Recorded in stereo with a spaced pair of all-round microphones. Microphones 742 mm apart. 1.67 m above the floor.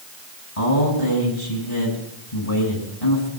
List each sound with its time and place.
0.6 s a man speaking: 50° left (ahead or behind), 7 m